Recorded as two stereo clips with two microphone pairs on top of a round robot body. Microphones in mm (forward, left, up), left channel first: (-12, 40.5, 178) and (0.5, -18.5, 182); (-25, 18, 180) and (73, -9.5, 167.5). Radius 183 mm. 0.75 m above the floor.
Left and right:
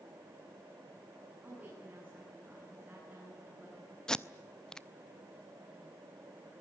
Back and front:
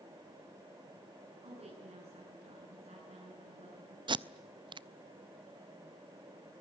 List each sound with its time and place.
1.4 s a woman speaking: 15° right, 9.5 m
4.1 s tape being pulled: 25° left, 0.7 m